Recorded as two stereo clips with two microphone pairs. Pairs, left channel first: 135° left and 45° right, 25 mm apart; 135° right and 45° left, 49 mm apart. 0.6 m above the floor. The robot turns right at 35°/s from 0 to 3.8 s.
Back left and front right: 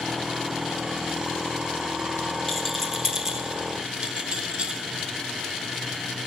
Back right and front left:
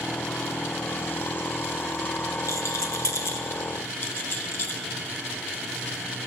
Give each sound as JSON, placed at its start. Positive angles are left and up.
{"t": 2.5, "sound": "a rattle", "azimuth_deg": -145, "distance_m": 0.5}